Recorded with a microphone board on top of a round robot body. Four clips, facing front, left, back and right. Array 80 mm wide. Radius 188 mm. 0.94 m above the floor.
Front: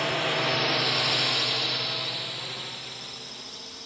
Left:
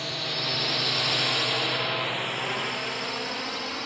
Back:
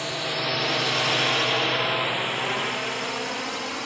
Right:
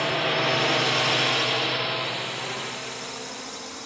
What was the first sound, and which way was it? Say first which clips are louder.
A drone: right 9 dB, front 2 dB; 65° right.